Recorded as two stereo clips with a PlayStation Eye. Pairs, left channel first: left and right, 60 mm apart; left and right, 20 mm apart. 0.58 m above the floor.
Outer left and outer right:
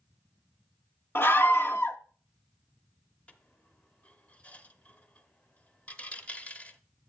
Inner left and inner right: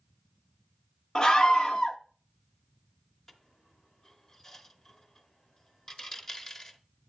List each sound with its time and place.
1.1 s a scream: 40° left (ahead or behind), 0.7 m
3.3 s a dropped coin: 20° left (ahead or behind), 0.8 m